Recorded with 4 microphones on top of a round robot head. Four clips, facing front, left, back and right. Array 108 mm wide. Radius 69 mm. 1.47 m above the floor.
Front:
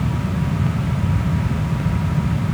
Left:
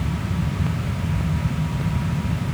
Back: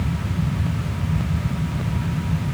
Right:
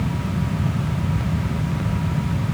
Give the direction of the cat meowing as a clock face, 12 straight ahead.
No cat meowing in this recording.